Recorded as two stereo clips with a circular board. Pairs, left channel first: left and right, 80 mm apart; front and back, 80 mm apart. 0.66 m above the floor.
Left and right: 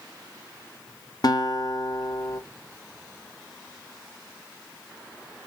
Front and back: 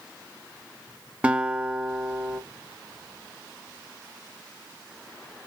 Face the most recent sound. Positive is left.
turn(degrees=105)